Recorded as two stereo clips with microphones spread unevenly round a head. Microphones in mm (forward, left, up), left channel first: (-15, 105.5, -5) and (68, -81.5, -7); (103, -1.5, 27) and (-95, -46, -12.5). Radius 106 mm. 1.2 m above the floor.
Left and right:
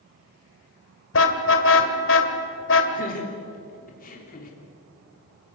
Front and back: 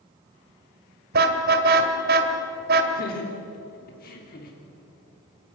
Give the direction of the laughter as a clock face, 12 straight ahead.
10 o'clock.